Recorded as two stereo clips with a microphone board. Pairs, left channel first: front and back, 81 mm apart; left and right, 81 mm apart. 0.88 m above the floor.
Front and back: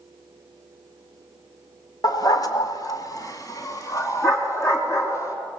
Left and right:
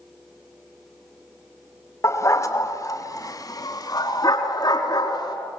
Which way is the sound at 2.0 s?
35° left.